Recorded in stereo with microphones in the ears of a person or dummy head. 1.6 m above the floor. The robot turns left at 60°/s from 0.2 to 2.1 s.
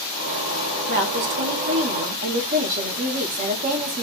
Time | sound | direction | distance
0.9 | a woman speaking | 55° right | 0.7 m